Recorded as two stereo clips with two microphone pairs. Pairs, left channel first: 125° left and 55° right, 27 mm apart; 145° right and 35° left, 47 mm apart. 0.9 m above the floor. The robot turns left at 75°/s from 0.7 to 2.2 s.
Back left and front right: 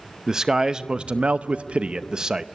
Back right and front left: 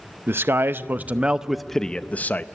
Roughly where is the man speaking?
Ahead.